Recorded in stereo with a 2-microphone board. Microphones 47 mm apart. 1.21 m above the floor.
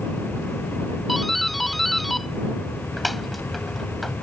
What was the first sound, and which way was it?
A doorbell, centre (ahead or behind).